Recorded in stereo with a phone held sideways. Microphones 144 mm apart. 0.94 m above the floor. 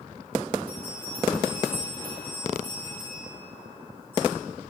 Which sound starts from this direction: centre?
A bell, at 0.7 s.